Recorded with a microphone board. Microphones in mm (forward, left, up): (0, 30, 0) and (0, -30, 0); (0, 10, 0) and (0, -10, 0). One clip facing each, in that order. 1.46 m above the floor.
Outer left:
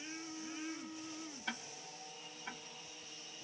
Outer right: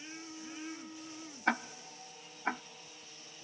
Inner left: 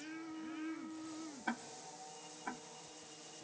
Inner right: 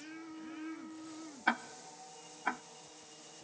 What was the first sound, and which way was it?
Ticking, 55° right (ahead or behind).